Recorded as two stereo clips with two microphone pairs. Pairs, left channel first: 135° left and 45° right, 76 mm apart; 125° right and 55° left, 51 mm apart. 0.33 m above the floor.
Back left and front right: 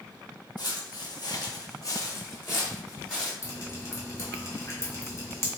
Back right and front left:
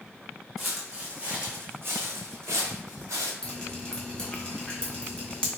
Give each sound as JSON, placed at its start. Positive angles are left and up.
{"t": 0.6, "sound": "footsteps", "azimuth_deg": 145, "distance_m": 1.1}
{"t": 3.4, "sound": "dripping", "azimuth_deg": 165, "distance_m": 1.1}